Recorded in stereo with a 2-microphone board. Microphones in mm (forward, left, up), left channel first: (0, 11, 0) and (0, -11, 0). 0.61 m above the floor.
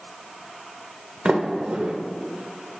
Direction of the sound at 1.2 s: 55° right (ahead or behind).